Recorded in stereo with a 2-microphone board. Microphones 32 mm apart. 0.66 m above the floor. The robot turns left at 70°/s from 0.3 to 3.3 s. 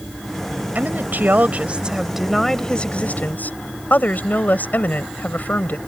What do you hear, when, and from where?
0.8 s a woman speaking: 70° right; by 5.8 s 110° left